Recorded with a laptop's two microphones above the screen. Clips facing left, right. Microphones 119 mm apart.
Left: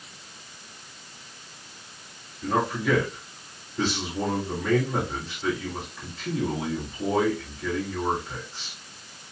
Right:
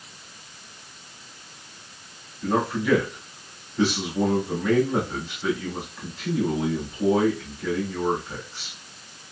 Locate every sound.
2.4 s a man speaking: 5° right (ahead or behind), 2.5 m